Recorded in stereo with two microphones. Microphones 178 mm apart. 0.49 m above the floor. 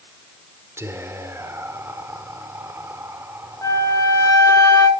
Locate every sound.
0.8 s whispering: 15° right (ahead or behind), 1.0 m
3.6 s a flute: 20° left (ahead or behind), 1.3 m